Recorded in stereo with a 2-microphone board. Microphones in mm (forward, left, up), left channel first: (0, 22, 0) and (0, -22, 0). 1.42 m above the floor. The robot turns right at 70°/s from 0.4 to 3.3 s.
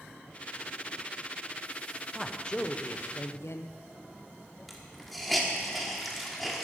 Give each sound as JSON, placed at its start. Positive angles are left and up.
{"t": 2.1, "sound": "a man speaking", "azimuth_deg": -5, "distance_m": 0.8}
{"t": 4.7, "sound": "a hiss", "side_deg": 0, "distance_m": 1.6}